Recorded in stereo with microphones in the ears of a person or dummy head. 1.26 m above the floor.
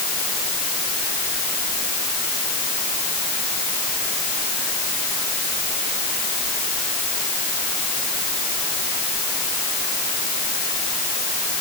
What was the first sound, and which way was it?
Only background noise.